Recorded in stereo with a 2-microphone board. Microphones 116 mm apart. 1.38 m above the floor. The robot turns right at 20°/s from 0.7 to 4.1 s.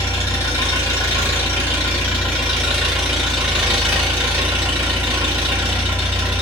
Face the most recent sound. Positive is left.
turn(degrees=-160)